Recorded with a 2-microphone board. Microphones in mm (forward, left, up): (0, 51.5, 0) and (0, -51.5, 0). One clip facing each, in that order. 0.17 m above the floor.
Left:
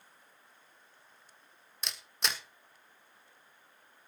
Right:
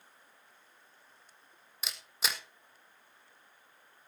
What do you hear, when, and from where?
1.8 s a camera shutter: centre (ahead or behind), 1.5 m